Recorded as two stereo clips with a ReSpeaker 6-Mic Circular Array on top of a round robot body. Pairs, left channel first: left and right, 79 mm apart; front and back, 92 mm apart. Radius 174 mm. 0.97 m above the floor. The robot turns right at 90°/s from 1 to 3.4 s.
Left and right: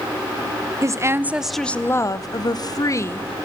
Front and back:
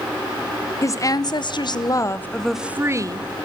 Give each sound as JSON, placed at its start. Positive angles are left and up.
{"t": 0.8, "sound": "a woman speaking", "azimuth_deg": -45, "distance_m": 0.9}